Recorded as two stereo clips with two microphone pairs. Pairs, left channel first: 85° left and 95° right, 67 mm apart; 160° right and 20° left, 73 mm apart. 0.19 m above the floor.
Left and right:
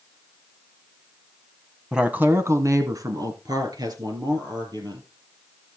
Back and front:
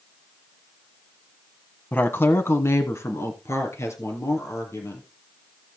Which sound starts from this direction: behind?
A woman speaking, at 1.9 s.